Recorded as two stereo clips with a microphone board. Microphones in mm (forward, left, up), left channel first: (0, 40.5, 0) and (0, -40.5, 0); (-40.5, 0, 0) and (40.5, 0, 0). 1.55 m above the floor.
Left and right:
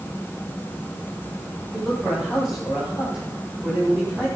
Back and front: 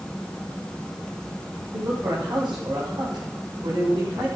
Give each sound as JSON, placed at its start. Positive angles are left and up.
{"t": 1.7, "sound": "a man speaking", "azimuth_deg": -15, "distance_m": 7.0}